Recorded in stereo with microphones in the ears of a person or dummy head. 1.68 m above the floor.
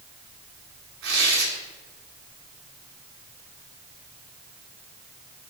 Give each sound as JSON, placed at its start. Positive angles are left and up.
{"t": 1.0, "sound": "tearing paper", "side_deg": -80, "distance_m": 6.0}